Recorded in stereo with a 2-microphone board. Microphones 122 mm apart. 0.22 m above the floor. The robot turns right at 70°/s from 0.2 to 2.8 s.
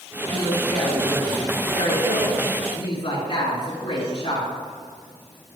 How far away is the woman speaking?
About 2.5 m.